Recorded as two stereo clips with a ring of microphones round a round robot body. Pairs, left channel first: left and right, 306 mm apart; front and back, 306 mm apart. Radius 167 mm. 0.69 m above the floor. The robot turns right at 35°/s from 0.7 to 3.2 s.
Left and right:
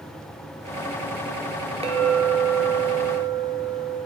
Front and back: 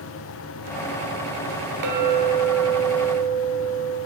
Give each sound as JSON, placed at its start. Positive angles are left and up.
{"t": 1.8, "sound": "a clink", "azimuth_deg": -165, "distance_m": 1.0}